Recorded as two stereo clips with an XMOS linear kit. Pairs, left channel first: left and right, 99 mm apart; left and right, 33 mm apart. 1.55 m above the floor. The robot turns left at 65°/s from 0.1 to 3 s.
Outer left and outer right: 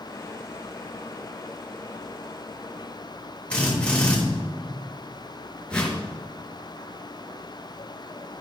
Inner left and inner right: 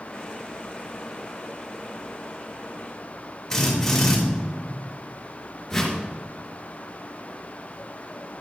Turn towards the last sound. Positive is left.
turn(degrees=10)  # may be behind; listen again after turning